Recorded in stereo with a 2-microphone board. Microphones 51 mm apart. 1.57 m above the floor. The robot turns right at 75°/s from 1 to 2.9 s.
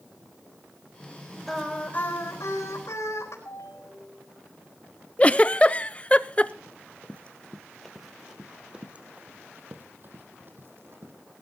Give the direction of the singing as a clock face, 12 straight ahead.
12 o'clock.